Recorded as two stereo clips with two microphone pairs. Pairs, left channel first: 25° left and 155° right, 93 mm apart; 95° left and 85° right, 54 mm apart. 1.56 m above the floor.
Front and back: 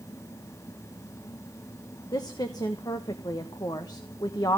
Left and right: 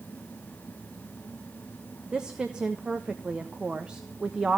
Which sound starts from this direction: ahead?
A woman speaking, at 2.1 s.